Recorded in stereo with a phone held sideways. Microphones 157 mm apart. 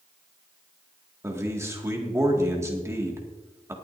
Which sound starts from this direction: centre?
A man speaking, at 1.2 s.